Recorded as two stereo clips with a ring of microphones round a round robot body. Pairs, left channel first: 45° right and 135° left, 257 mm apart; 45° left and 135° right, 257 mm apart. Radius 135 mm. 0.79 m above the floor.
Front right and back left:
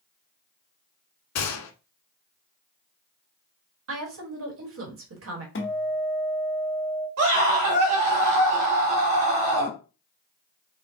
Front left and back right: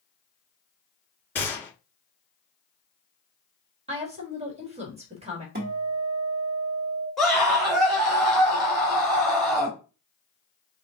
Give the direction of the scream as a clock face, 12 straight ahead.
8 o'clock.